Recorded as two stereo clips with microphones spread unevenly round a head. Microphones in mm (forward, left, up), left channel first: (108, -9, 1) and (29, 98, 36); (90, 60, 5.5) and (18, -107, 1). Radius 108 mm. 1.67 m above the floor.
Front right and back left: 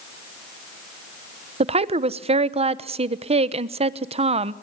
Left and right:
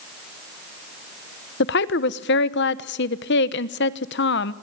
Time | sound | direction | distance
1.6 | a woman speaking | 100° left | 1.0 m